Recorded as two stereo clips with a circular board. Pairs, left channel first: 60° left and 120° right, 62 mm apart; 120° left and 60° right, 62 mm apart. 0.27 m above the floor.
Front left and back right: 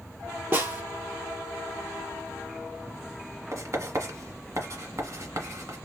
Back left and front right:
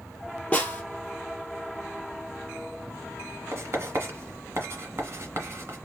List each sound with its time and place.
0.5 s a snare drum: 175° right, 1.5 m
3.5 s writing: 100° right, 1.5 m